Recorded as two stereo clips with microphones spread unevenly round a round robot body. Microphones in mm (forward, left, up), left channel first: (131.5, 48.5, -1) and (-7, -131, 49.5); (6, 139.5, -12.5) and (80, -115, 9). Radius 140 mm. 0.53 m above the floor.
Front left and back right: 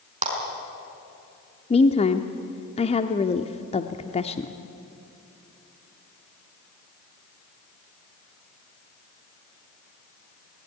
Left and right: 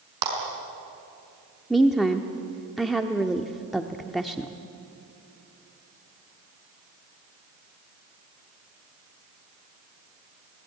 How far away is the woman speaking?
About 0.9 m.